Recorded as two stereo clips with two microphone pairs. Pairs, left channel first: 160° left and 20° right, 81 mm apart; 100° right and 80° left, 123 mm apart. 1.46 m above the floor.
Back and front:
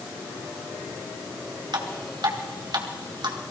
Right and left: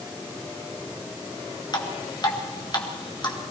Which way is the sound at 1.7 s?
45° right.